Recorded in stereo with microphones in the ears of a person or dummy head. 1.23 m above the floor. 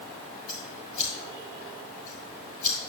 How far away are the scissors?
About 4.5 m.